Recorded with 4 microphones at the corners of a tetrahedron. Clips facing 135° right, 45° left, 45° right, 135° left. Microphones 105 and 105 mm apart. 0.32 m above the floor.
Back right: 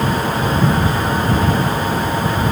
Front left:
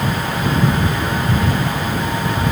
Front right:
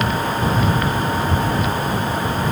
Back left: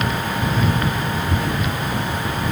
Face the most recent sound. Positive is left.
No sound to turn to.